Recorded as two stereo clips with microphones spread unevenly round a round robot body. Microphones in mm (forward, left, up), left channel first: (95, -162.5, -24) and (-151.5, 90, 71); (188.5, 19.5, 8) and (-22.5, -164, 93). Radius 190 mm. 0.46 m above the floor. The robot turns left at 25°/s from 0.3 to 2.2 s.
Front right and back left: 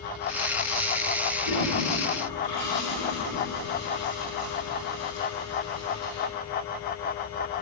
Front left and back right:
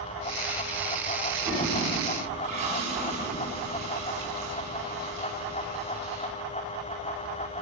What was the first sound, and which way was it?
A toilet flushing, 50° right.